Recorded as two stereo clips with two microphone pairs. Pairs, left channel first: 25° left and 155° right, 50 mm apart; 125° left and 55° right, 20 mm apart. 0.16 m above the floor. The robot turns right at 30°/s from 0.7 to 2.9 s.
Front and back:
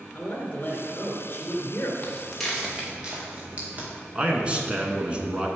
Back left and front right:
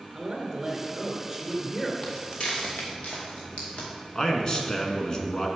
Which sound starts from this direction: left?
Footsteps, at 2.0 s.